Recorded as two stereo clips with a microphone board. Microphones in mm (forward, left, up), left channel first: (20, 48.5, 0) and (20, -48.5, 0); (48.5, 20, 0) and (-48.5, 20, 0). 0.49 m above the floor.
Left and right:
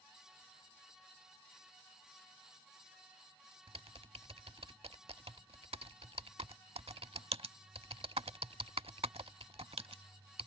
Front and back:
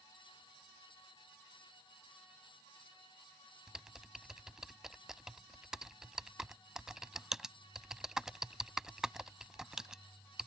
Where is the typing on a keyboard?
95° right.